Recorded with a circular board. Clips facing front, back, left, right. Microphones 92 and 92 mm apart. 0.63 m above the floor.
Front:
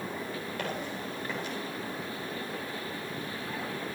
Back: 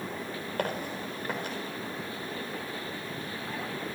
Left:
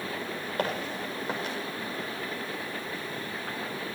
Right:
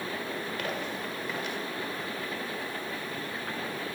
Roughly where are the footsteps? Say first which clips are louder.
Back 5 dB, left 3 dB; behind left.